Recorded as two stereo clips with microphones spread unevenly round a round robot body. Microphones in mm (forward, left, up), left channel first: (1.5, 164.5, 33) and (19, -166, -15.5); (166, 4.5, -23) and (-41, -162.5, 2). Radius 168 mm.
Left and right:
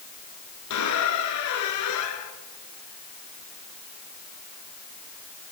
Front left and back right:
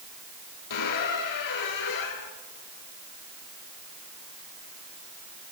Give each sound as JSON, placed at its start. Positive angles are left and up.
{"t": 0.7, "sound": "a squeak", "azimuth_deg": 55, "distance_m": 1.8}